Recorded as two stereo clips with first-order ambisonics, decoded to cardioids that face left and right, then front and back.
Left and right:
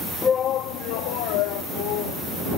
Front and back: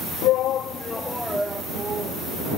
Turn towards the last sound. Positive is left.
turn(degrees=110)